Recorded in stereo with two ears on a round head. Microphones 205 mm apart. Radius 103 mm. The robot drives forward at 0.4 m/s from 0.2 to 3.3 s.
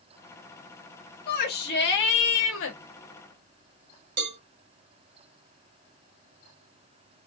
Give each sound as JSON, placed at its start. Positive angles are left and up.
{"t": 1.3, "sound": "a shout", "side_deg": 40, "distance_m": 1.5}
{"t": 4.2, "sound": "a cowbell", "side_deg": -55, "distance_m": 1.2}